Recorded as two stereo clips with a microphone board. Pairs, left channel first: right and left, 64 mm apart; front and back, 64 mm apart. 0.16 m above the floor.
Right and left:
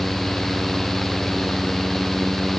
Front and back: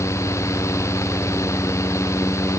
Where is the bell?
I don't hear a bell.